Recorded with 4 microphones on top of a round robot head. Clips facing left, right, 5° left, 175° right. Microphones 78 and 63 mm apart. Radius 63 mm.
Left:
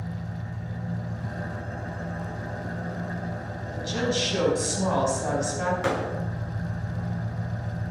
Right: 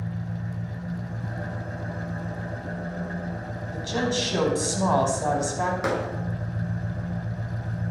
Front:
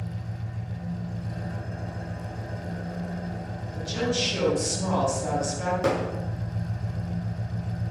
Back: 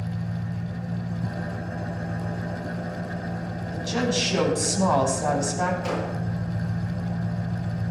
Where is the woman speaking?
150° right, 5 m.